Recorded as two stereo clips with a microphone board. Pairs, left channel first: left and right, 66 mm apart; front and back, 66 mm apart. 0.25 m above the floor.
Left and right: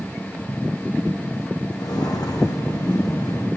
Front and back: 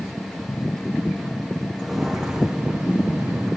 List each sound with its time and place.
1.8 s footsteps: 95° left, 1.3 m; by 3.5 s 120° left, 2 m